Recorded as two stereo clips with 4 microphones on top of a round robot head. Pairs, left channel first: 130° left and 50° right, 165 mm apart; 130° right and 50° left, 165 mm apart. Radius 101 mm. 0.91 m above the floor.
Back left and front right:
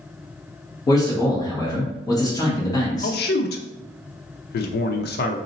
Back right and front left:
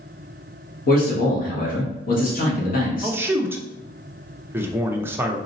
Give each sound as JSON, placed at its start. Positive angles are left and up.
{"t": 0.9, "sound": "a man speaking", "azimuth_deg": -165, "distance_m": 1.6}
{"t": 3.0, "sound": "a man speaking", "azimuth_deg": 130, "distance_m": 0.6}